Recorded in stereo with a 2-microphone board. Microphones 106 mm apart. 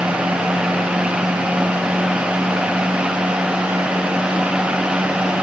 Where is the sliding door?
No sliding door in this recording.